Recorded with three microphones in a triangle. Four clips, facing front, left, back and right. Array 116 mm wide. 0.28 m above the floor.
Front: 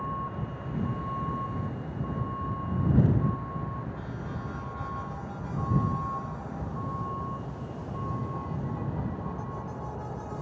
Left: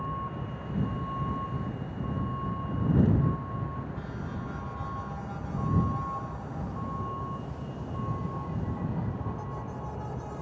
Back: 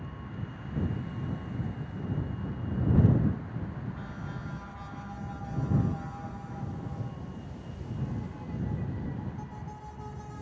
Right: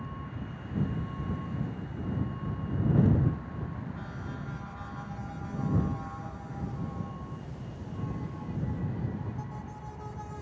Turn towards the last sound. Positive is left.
turn(degrees=35)